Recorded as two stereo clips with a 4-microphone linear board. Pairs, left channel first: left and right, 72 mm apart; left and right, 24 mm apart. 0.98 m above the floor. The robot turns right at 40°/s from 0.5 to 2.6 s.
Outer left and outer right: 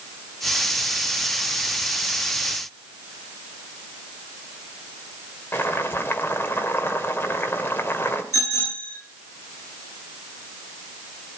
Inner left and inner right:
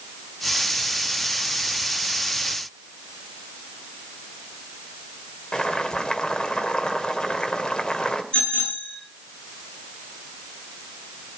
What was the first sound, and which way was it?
Boiling, 30° left (ahead or behind).